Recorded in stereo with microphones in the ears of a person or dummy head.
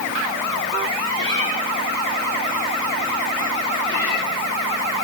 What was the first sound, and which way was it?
A cat meowing, 25° left (ahead or behind).